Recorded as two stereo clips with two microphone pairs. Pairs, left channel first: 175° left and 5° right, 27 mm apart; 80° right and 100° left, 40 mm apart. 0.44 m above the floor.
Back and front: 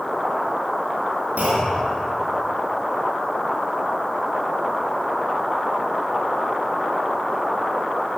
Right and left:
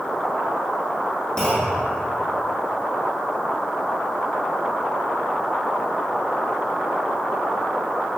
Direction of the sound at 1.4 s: 5° right.